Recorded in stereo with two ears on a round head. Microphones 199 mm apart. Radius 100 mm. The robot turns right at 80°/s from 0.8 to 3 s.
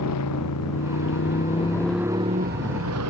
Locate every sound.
0.0 s a motorcycle: 90° left; by 3.1 s 85° right